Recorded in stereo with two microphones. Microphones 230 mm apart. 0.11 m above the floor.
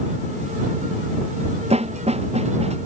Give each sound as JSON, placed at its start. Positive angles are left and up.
{"t": 1.7, "sound": "a snare drum", "side_deg": -25}